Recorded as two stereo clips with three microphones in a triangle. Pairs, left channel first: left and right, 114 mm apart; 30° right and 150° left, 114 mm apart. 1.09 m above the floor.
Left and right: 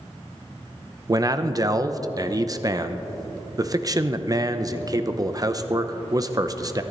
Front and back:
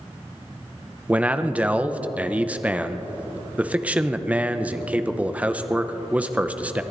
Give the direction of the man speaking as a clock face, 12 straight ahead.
5 o'clock.